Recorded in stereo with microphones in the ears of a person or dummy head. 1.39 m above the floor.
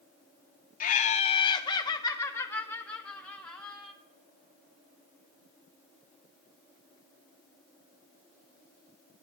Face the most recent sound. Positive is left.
turn(degrees=5)  # may be behind; listen again after turning